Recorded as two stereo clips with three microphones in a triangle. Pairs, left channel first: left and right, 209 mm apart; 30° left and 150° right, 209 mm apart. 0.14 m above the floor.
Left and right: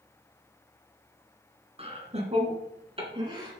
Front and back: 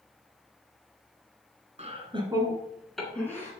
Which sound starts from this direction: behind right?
Laughter, at 1.8 s.